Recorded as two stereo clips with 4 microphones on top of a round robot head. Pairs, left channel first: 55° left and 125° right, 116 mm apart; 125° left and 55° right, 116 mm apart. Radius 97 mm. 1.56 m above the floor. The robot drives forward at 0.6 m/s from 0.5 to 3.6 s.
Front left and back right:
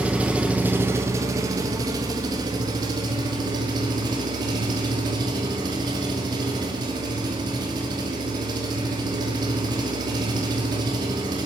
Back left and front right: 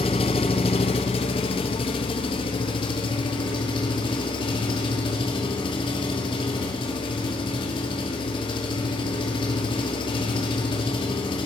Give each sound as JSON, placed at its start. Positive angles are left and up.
{"t": 0.0, "sound": "an engine running", "azimuth_deg": 155, "distance_m": 0.7}